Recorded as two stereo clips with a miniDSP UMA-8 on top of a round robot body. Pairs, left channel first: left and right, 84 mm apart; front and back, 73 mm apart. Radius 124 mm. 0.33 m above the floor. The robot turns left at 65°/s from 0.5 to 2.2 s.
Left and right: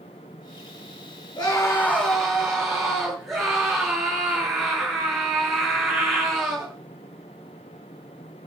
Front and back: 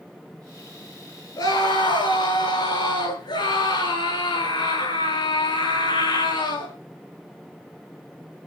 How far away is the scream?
About 9 m.